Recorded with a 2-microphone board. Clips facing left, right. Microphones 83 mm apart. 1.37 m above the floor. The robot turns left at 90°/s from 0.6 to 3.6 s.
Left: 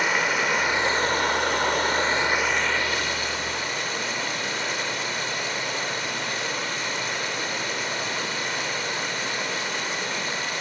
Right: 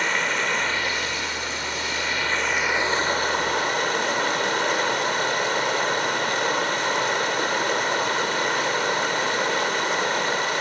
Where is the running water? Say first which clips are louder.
Left 1 dB; 170° left, 1.8 m; by 10.6 s 100° right, 1.8 m.